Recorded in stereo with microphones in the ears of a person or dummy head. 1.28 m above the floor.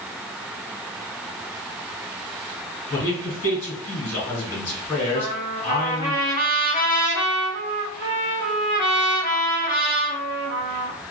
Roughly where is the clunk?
I don't hear a clunk.